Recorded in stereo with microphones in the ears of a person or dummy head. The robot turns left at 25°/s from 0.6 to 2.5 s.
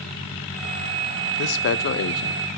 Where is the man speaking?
60° left (ahead or behind), 0.7 m; by 2.5 s 55° left (ahead or behind), 0.7 m.